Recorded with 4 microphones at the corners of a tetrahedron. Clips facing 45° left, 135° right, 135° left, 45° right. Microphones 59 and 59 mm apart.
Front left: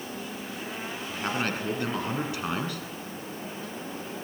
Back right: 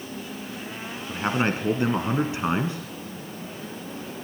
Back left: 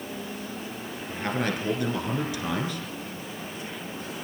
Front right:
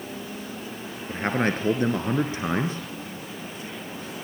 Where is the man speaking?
80° right, 1.8 m.